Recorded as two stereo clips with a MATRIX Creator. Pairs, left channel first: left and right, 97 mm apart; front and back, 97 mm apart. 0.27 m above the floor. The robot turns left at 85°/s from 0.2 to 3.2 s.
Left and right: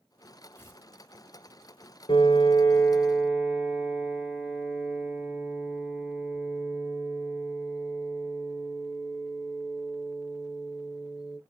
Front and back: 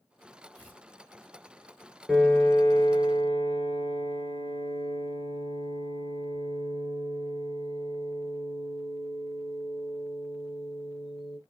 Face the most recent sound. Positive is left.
turn(degrees=-5)